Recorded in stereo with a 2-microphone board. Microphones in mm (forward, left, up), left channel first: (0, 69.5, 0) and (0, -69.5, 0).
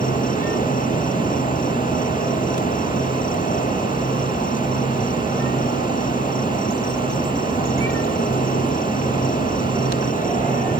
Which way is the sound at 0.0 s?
65° left (ahead or behind).